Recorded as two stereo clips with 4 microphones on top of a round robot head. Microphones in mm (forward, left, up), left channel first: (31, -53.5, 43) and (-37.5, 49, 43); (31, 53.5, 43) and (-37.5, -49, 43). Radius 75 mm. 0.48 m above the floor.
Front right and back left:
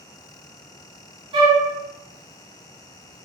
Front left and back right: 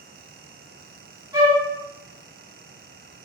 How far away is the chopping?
No chopping in this recording.